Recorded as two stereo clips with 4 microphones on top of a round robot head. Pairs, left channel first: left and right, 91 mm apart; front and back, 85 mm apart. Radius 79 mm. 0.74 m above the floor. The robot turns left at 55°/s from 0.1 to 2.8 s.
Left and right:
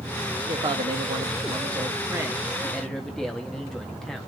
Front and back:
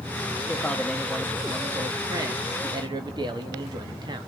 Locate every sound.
0.5 s a man speaking: 60° right, 1.4 m; by 4.3 s 175° left, 1.4 m